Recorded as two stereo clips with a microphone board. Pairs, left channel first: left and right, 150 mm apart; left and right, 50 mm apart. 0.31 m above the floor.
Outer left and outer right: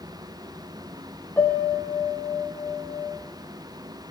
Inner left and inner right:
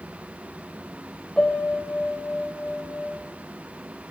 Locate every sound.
1.4 s a piano: 10° left (ahead or behind), 5 m